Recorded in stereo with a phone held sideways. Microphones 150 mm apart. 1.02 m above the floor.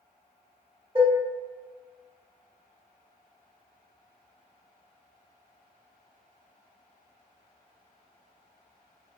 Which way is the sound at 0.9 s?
40° right (ahead or behind).